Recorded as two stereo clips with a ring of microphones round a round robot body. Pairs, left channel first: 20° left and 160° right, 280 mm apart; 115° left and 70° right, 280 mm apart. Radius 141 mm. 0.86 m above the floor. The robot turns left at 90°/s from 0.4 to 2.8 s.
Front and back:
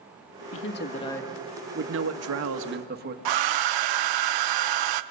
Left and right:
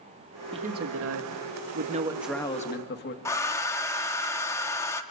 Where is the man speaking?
Straight ahead, 1.4 m; by 3.1 s 155° left, 1.4 m.